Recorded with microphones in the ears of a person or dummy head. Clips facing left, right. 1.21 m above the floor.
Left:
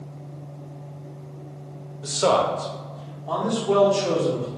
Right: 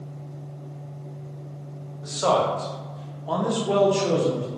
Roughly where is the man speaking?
Left.